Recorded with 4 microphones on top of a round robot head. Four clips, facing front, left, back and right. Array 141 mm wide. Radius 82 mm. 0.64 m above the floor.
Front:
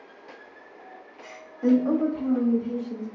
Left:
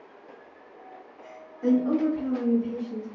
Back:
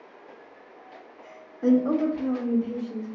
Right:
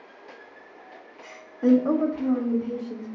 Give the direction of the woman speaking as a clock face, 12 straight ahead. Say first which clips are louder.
Right 3 dB, even; 3 o'clock.